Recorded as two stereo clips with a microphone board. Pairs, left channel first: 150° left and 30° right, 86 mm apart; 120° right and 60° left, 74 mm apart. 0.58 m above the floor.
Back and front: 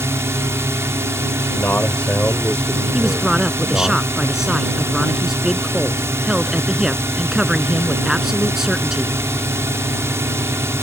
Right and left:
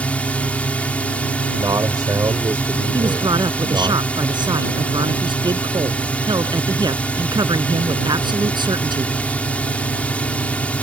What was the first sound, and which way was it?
A drone, 60° right.